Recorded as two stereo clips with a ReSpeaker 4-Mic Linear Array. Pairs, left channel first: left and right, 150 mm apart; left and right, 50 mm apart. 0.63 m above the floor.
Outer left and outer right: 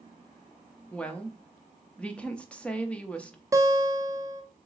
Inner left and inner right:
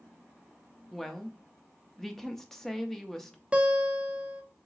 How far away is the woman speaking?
About 0.5 m.